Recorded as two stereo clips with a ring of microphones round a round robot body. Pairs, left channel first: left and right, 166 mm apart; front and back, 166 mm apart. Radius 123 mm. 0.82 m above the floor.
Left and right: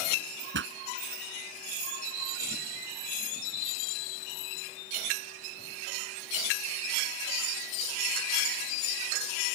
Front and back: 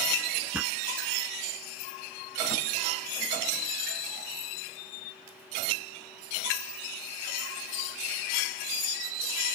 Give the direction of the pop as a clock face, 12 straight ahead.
3 o'clock.